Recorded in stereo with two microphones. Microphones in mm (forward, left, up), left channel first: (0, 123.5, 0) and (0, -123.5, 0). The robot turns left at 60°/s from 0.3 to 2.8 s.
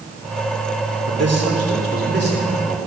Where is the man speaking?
65° right, 3 m; by 2.8 s 170° right, 3 m.